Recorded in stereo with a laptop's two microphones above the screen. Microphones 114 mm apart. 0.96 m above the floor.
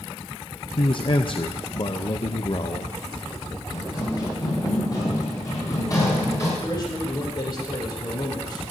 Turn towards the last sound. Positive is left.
turn(degrees=35)  # may be behind; listen again after turning